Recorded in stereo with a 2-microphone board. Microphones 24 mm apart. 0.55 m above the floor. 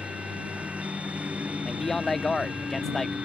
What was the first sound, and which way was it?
A lawn mower, 70° right (ahead or behind).